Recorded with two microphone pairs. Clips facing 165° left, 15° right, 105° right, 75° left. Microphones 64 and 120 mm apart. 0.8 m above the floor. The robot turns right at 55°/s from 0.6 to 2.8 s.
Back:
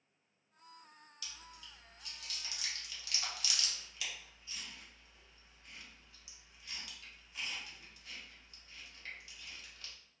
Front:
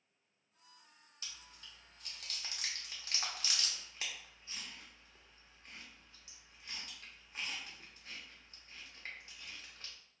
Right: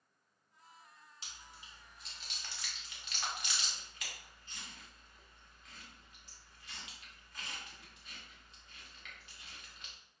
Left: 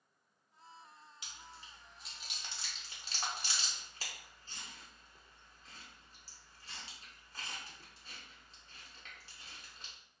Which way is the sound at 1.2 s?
60° right.